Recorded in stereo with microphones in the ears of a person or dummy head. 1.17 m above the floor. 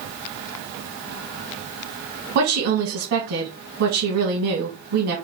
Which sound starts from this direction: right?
A woman speaking, at 2.4 s.